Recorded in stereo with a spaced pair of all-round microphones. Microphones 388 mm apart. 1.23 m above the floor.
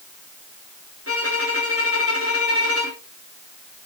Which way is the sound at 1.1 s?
40° left (ahead or behind).